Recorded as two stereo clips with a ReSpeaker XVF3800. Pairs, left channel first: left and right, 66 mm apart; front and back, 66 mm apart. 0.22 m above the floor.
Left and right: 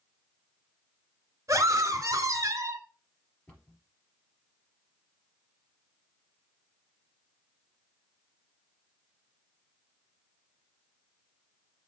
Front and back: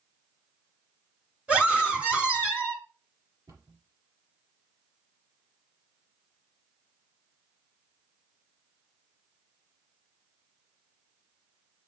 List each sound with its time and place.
1.5 s a scream: 115° right, 2 m
3.5 s a cupboard door: 165° left, 4 m